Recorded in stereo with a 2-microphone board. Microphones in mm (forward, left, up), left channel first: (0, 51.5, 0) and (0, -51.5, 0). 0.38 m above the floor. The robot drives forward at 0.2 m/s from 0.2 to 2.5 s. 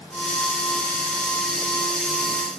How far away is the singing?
No singing in this recording.